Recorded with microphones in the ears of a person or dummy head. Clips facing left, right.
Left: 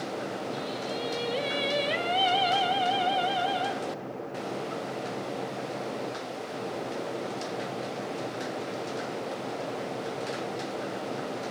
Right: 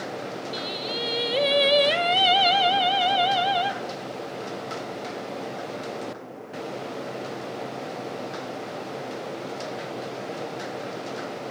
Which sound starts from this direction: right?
Singing, at 0.5 s.